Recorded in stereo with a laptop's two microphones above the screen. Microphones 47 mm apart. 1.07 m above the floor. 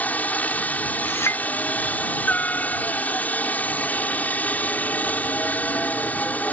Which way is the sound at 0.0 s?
35° left (ahead or behind).